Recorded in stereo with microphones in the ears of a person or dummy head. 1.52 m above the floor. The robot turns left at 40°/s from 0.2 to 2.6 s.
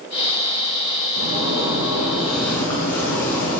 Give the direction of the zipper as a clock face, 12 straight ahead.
5 o'clock.